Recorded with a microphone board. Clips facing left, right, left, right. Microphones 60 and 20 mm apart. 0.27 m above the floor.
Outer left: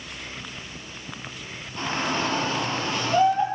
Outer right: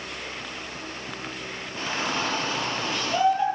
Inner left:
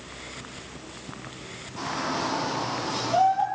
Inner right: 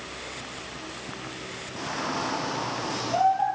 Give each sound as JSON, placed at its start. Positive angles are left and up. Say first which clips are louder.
{"t": 1.8, "sound": "a shout", "louder": "outer left 2 dB, inner left 2 dB", "side_deg": -10, "distance_m": 7.5}